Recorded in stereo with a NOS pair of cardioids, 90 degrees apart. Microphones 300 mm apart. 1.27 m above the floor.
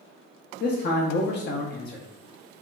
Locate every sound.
0.6 s a man speaking: 35° left, 0.5 m